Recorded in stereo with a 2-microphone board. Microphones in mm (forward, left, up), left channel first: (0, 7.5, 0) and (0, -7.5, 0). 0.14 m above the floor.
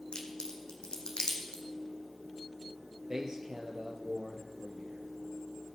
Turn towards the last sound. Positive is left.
turn(degrees=-45)  # may be behind; listen again after turning